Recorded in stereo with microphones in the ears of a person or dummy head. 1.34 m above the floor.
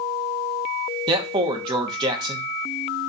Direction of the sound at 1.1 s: 25° right (ahead or behind).